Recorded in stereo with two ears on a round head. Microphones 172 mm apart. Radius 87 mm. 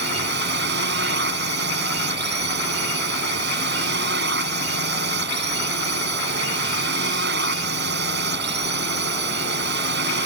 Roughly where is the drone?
Right.